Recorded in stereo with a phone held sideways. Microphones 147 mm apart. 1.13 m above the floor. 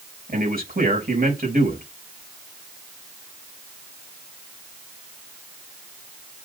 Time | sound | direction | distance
0.3 | a man speaking | 85° right | 5.5 m